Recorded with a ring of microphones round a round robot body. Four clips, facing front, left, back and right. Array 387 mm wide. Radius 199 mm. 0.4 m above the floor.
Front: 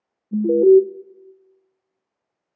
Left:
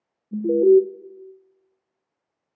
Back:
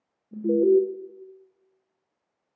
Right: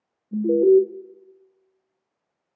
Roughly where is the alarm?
Ahead.